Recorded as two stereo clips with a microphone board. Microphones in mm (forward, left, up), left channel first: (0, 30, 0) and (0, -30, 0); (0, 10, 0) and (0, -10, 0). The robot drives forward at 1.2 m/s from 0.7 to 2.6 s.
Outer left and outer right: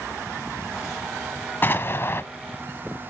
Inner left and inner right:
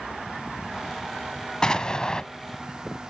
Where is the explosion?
35° left (ahead or behind), 1.1 m; by 2.2 s 40° left (ahead or behind), 1.0 m.